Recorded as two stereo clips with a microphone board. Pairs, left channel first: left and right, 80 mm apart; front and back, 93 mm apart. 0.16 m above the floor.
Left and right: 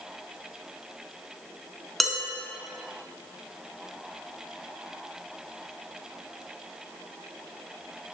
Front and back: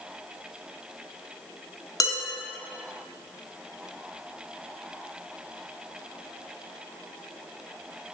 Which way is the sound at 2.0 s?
Straight ahead.